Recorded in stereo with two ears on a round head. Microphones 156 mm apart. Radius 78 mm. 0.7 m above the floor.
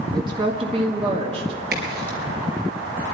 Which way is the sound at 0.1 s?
20° right (ahead or behind).